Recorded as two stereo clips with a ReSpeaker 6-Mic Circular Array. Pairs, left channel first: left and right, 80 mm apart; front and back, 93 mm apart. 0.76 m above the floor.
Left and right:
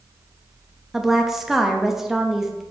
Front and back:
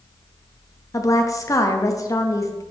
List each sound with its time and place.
0.9 s a woman speaking: 5° right, 0.7 m